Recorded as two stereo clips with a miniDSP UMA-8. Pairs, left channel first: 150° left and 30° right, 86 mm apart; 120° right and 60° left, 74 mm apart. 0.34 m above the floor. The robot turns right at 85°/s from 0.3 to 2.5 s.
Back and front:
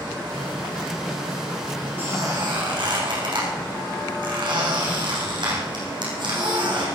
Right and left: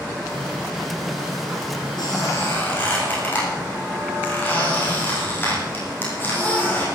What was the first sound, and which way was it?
A squeak, 100° right.